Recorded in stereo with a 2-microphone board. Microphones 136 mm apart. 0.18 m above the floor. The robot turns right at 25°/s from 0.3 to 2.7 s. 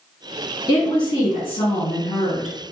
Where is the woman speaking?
45° left, 1.5 m; by 2.6 s 95° left, 1.5 m.